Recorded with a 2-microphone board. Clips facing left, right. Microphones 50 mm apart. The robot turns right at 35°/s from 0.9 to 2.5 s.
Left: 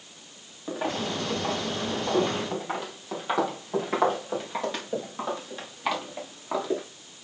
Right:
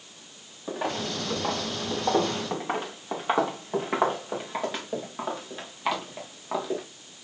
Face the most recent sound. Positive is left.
turn(degrees=0)  # may be behind; listen again after turning